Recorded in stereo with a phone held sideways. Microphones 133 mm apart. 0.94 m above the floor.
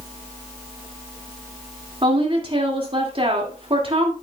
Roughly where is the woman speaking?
Right.